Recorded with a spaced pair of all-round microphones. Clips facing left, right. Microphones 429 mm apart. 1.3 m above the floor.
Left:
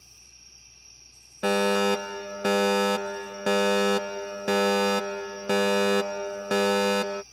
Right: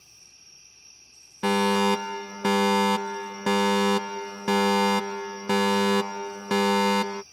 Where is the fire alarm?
15° right (ahead or behind).